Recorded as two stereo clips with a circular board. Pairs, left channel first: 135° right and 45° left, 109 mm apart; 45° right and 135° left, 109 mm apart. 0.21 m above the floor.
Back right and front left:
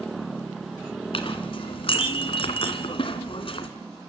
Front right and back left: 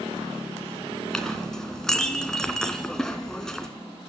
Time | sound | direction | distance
1.1 | a clink | 130° right | 1.8 m